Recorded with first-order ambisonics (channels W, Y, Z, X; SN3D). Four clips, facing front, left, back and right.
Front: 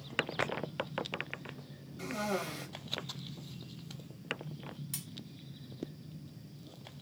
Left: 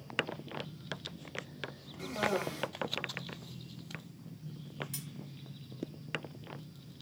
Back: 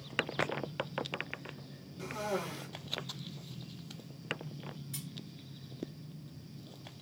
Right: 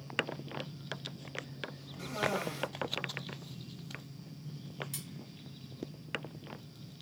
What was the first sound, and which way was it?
A cough, 15° right.